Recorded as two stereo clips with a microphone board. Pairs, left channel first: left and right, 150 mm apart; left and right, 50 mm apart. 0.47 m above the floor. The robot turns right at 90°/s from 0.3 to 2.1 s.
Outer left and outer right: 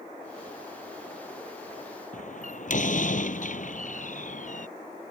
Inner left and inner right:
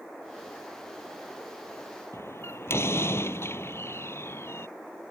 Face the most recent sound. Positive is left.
turn(degrees=60)  # may be behind; listen again after turning